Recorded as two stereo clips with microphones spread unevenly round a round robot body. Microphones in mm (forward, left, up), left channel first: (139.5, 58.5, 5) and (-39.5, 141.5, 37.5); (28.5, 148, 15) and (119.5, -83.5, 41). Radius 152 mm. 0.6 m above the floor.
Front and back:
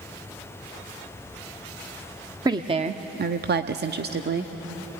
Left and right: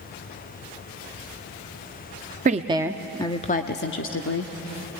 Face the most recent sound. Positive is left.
turn(degrees=115)